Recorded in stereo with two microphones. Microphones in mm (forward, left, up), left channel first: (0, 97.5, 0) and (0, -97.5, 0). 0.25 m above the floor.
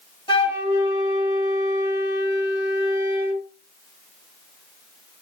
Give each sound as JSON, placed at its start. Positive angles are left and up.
{"t": 0.3, "sound": "a flute", "side_deg": 25, "distance_m": 1.1}